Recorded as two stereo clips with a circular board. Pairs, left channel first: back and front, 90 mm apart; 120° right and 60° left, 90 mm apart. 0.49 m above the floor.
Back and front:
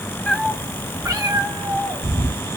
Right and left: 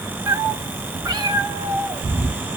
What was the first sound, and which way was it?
A cat meowing, 100° left.